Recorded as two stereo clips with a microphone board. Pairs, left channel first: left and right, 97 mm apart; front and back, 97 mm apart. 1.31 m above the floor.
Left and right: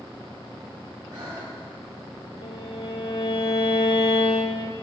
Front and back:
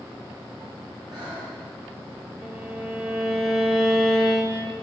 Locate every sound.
1.1 s breathing: 135° right, 7 m
2.4 s a violin: 95° left, 2.5 m